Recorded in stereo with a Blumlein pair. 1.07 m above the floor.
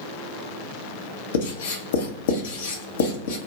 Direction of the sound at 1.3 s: 60° left.